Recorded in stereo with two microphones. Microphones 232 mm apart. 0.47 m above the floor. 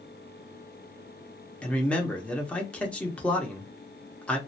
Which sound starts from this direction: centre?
A man speaking, at 1.6 s.